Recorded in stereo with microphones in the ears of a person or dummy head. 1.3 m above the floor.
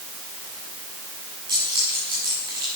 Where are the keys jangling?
30° right (ahead or behind), 7.5 m.